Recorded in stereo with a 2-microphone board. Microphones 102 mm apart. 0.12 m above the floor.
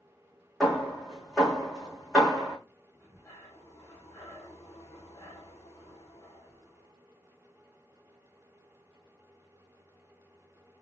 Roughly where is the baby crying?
No baby crying in this recording.